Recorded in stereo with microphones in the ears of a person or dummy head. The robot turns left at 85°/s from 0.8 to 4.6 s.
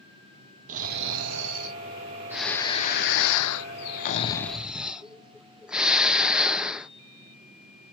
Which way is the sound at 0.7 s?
40° right.